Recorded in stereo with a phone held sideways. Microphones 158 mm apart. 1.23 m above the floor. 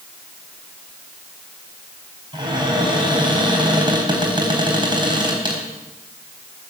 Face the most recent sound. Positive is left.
turn(degrees=-30)  # may be behind; listen again after turning